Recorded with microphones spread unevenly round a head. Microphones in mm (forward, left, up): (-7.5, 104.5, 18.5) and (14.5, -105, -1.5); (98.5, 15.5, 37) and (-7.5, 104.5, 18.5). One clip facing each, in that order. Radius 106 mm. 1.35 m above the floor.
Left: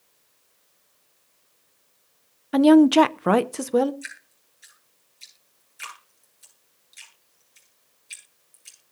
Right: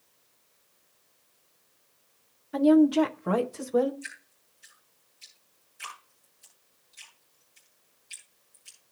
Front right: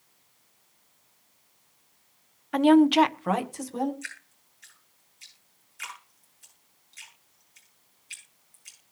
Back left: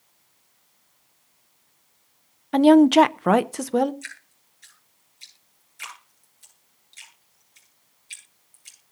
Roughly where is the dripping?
Left.